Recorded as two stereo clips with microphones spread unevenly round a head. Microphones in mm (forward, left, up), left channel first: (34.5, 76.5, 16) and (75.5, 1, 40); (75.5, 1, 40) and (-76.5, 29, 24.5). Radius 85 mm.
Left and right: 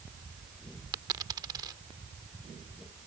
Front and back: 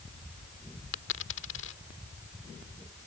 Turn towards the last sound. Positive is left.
turn(degrees=-30)